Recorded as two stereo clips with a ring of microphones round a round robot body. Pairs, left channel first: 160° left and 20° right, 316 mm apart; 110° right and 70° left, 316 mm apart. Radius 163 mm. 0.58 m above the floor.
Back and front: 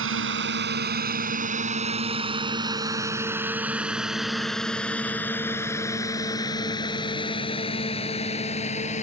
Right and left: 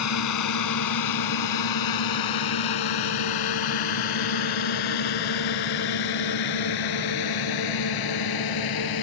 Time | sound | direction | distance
0.0 | a drone | 75° right | ?